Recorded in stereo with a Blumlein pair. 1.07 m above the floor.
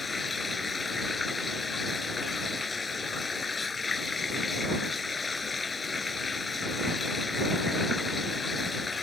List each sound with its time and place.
0.0 s running water: 15° left